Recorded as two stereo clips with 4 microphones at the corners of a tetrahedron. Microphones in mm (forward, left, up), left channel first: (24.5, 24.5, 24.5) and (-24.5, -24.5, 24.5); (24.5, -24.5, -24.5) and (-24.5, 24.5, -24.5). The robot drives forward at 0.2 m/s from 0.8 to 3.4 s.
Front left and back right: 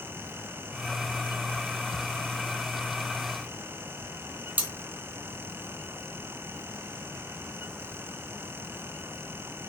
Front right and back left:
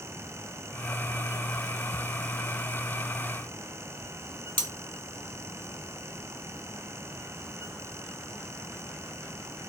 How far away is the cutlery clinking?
About 0.7 m.